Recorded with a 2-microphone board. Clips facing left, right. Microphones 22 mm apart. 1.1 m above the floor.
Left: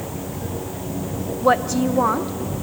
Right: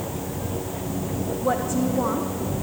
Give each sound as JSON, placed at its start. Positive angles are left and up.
{"t": 1.4, "sound": "a woman speaking", "side_deg": 60, "distance_m": 1.0}